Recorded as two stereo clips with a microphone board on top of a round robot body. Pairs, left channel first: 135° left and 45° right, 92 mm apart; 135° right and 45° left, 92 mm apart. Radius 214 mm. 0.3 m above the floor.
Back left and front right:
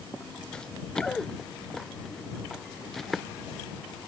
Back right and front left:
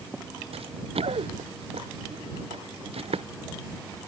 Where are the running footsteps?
55° left; by 3.3 s 45° left.